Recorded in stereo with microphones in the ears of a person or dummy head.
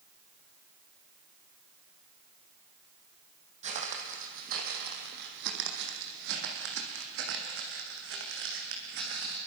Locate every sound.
3.6 s footsteps: 40° right (ahead or behind), 2.5 m; by 9.4 s 65° right (ahead or behind), 5 m